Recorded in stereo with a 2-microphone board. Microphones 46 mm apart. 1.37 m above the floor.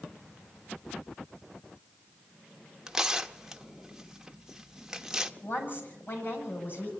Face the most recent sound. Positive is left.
turn(degrees=45)  # may be behind; listen again after turning